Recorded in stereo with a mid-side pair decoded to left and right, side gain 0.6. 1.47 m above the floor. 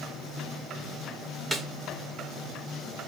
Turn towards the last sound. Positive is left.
turn(degrees=-10)